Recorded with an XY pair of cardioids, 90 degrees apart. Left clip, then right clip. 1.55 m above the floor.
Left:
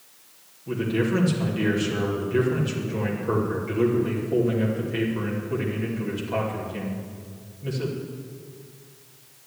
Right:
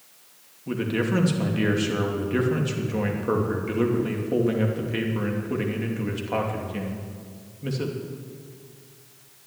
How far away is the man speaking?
About 2.5 m.